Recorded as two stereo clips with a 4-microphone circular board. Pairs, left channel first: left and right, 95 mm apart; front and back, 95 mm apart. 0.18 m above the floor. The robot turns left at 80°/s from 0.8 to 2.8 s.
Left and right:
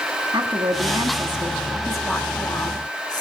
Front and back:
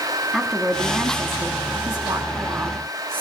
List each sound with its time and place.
0.3 s a woman speaking: 90° right, 1.3 m; by 3.2 s 110° left, 1.3 m